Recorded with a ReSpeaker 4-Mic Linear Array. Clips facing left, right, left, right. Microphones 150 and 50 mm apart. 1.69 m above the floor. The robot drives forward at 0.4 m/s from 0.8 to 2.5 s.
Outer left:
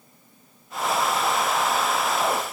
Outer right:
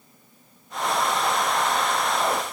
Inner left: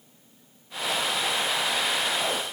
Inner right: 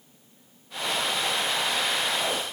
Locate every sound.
Only background noise.